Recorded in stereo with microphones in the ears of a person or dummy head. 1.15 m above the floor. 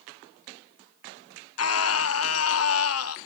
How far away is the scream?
About 1.2 m.